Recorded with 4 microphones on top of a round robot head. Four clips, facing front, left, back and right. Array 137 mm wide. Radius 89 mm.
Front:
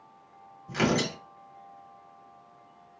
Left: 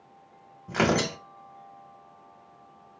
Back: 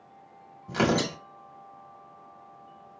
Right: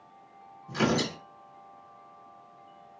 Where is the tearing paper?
120° left, 1.2 m.